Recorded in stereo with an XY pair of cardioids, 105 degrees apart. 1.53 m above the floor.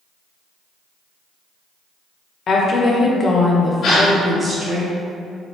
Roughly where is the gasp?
Ahead left.